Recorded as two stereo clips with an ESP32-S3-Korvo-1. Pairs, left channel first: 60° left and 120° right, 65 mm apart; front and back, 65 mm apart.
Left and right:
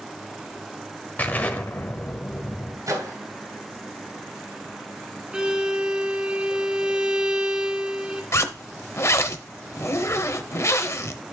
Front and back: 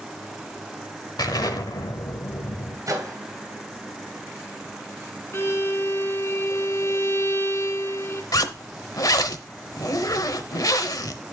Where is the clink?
No clink in this recording.